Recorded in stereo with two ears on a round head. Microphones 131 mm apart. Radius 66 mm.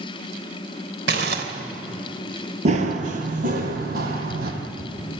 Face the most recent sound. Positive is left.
turn(degrees=-70)  # may be behind; listen again after turning